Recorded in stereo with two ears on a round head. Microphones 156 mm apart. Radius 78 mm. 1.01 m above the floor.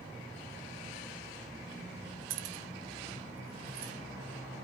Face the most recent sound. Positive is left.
turn(degrees=-55)  # may be behind; listen again after turning